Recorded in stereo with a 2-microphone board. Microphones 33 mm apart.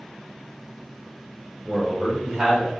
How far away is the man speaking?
About 1.2 m.